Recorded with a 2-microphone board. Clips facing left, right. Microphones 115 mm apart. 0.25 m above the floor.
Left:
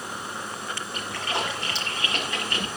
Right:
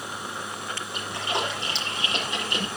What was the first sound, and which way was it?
A splash, 20° right (ahead or behind).